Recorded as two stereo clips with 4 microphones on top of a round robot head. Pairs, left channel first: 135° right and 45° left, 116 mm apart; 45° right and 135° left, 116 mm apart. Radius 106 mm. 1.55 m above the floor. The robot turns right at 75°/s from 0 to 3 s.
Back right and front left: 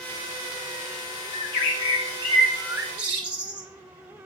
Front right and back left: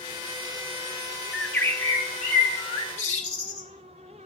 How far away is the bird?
About 0.8 m.